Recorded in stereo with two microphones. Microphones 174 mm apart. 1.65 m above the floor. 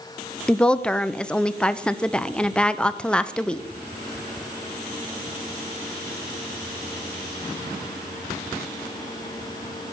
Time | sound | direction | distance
0.5 | a woman speaking | 5° left (ahead or behind) | 0.6 m